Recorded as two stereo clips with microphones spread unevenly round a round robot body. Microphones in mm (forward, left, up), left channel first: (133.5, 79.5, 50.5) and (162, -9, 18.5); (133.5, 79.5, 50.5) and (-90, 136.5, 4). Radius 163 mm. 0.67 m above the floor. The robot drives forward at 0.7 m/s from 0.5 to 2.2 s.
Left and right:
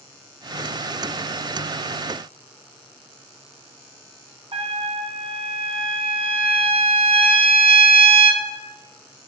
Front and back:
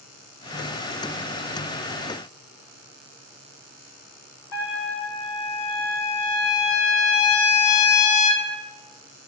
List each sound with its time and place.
4.5 s a trumpet: 45° right, 1.6 m